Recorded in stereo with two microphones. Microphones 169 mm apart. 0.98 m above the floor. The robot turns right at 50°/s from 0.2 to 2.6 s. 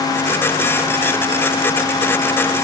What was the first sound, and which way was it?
Only background noise.